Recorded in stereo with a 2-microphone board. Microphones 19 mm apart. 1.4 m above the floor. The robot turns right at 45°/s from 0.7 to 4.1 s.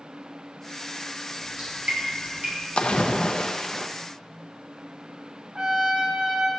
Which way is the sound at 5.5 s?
35° right (ahead or behind).